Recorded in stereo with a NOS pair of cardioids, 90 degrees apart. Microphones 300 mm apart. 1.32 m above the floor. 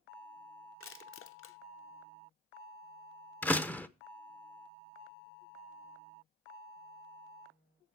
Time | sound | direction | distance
0.8 | crushing | 45° left | 0.9 m
3.4 | a door slam | 5° left | 0.6 m